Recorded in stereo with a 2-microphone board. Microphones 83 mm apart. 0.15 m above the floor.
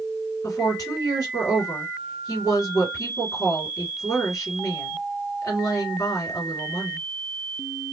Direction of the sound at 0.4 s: 45° left (ahead or behind).